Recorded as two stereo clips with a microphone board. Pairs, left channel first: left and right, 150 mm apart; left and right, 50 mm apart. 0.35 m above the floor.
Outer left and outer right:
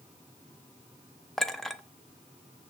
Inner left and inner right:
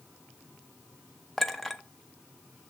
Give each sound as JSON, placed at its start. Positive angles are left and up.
{"t": 1.4, "sound": "a clink", "side_deg": 0, "distance_m": 0.5}